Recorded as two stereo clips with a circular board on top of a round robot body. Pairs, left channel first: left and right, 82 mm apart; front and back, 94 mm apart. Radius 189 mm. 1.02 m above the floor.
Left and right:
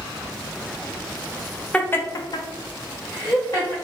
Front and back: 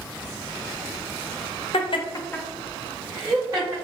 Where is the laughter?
15° left, 0.6 m; by 3.7 s 130° left, 1.2 m.